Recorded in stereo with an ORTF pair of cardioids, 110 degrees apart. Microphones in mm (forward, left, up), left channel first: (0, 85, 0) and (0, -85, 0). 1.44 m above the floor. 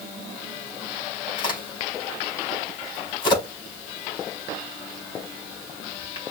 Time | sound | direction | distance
1.4 | a crack | 30° left | 4 m